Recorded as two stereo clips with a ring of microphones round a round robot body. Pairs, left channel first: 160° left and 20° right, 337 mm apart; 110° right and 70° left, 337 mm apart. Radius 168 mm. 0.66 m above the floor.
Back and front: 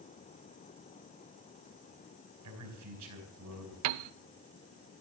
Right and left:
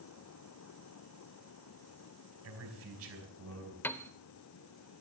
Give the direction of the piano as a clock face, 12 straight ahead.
1 o'clock.